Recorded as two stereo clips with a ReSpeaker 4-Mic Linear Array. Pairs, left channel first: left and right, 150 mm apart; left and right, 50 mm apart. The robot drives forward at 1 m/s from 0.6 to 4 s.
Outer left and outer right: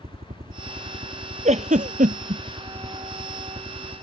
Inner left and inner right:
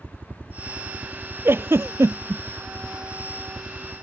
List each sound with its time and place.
0.0 s a helicopter: 45° right (ahead or behind); by 4.0 s 40° right (ahead or behind)
1.4 s a giggle: 50° right (ahead or behind); by 2.4 s 55° right (ahead or behind)